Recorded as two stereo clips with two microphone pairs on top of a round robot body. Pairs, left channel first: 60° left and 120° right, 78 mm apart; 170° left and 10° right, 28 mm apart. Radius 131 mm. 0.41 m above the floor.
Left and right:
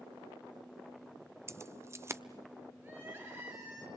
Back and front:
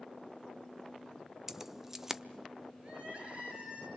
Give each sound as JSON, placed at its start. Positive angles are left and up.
{"t": 1.5, "sound": "keys jangling", "azimuth_deg": -85, "distance_m": 1.0}
{"t": 2.8, "sound": "crying", "azimuth_deg": -60, "distance_m": 7.5}